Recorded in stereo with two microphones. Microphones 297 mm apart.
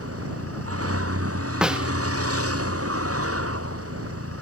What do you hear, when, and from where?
0.0 s a vehicle: 50° right (ahead or behind)
1.6 s a snare drum: 5° right (ahead or behind)